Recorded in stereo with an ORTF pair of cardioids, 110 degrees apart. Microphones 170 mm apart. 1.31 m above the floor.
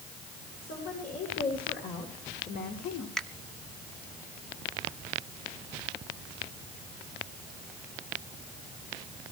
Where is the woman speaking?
60° left, 4 m; by 3.1 s 65° left, 2.5 m.